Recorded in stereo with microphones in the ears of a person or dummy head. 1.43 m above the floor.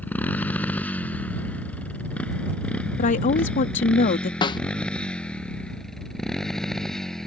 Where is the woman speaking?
40° left (ahead or behind).